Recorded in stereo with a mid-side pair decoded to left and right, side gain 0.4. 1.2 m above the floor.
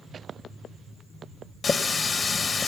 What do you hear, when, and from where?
1.6 s a running tap: 45° left, 1.1 m